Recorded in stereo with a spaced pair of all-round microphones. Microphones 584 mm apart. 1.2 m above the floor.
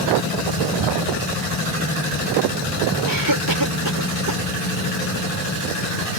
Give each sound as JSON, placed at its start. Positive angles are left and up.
{"t": 3.0, "sound": "a cough", "side_deg": -35}